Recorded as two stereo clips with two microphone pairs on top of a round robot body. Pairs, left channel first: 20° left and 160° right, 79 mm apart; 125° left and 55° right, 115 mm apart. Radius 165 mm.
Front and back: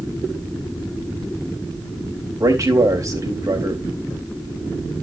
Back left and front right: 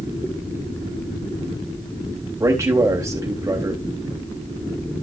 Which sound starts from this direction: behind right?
A man speaking, at 2.4 s.